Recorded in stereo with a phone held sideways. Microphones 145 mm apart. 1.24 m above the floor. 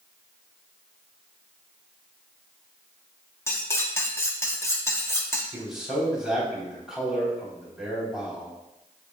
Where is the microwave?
I don't hear a microwave.